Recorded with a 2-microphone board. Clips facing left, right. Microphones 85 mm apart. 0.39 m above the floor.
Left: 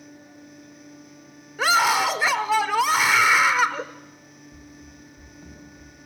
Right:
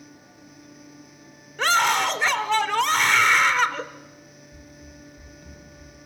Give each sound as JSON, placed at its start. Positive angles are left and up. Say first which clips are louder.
{"t": 1.6, "sound": "a scream", "louder": "left 1 dB", "side_deg": 5, "distance_m": 0.8}
{"t": 4.5, "sound": "running footsteps", "louder": "even", "side_deg": 20, "distance_m": 2.0}